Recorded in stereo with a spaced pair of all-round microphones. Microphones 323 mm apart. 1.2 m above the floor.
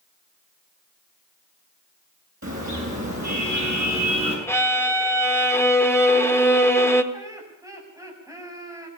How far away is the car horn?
About 8 m.